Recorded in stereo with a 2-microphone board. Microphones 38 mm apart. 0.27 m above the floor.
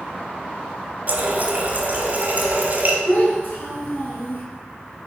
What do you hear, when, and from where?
1.1 s a running tap: 45° right (ahead or behind), 1.1 m
3.1 s a child speaking: 50° left (ahead or behind), 2.5 m